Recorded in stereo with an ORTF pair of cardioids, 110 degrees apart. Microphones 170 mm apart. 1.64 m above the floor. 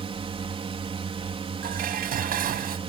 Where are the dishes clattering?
60° right.